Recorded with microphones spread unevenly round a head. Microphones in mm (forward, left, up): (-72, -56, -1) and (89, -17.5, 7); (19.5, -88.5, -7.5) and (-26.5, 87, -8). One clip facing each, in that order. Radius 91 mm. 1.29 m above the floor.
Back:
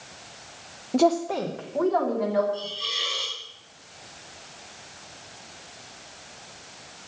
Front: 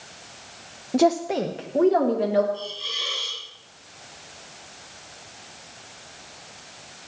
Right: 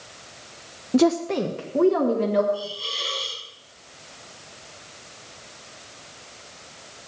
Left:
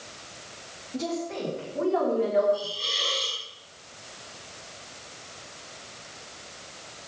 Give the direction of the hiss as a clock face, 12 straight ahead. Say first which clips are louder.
Even, right 1 dB; 6 o'clock.